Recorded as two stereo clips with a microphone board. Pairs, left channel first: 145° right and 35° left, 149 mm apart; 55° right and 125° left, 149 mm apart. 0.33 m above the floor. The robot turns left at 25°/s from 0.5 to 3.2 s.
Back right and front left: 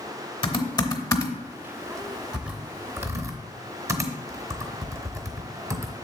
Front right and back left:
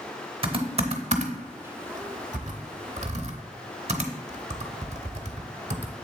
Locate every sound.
0.4 s typing on a keyboard: 165° left, 0.8 m; by 5.9 s 100° left, 0.8 m